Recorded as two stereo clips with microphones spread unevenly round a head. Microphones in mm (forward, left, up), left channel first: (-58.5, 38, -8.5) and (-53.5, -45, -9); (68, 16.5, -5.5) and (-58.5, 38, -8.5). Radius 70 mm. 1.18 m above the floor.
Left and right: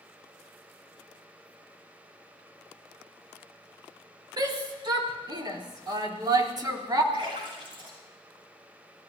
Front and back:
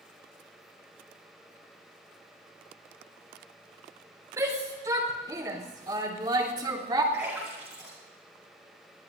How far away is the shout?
About 4.5 m.